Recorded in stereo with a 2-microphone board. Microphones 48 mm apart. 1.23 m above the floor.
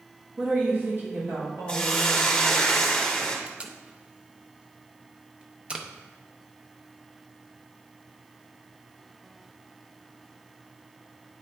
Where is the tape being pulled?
20° right (ahead or behind), 0.6 m.